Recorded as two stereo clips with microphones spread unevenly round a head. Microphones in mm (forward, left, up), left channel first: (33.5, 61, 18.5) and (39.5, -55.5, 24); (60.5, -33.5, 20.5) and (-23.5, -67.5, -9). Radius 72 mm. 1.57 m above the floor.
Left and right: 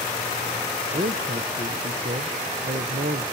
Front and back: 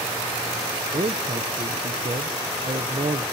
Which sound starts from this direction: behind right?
A man speaking, at 0.9 s.